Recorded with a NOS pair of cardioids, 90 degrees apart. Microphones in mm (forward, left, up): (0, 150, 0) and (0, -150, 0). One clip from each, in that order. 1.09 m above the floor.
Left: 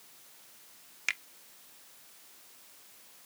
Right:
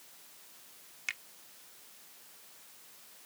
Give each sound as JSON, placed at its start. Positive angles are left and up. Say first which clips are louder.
{"t": 1.1, "sound": "a finger snap", "louder": "left 5 dB", "azimuth_deg": 40}